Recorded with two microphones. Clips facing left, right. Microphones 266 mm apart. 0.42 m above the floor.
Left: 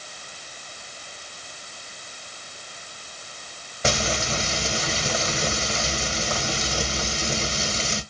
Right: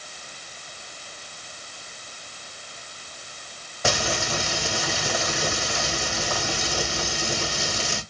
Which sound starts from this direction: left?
Frying, at 3.8 s.